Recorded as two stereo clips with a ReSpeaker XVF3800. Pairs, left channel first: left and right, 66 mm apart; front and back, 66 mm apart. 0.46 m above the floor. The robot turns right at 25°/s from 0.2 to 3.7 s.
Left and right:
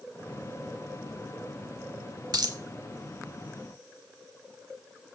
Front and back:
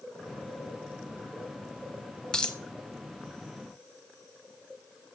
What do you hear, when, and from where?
2.3 s a dropped coin: 80° right, 0.7 m; by 2.6 s 70° right, 0.7 m